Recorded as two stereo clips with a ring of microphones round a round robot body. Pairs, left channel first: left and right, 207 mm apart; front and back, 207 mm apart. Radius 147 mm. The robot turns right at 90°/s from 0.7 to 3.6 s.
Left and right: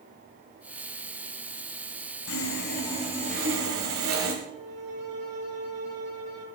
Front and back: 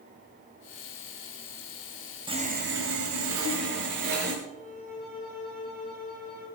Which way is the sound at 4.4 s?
60° right.